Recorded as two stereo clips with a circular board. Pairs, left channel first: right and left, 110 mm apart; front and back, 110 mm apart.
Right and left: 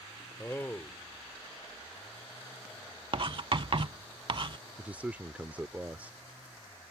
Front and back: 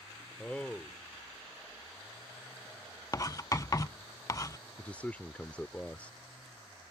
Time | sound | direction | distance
0.4 | a man speaking | 60° right | ?
3.1 | writing | 55° left | ?
4.8 | a man speaking | 45° left | ?